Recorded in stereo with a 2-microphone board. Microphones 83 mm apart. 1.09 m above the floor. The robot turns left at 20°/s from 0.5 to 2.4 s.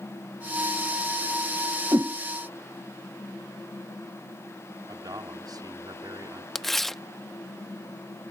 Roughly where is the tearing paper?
Centre.